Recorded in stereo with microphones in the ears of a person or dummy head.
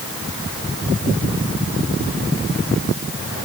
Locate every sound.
Only background noise.